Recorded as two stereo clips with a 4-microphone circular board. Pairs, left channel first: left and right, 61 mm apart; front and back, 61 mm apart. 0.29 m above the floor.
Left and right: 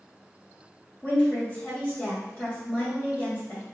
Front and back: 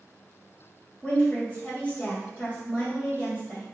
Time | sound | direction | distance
1.0 | a woman speaking | 40° left | 1.7 m